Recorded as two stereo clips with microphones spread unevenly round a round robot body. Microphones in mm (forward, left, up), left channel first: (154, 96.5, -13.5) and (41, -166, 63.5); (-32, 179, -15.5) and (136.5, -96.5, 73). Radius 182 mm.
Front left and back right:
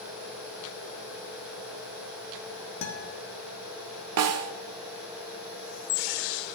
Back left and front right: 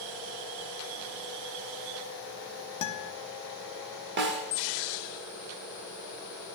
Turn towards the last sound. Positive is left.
turn(degrees=-105)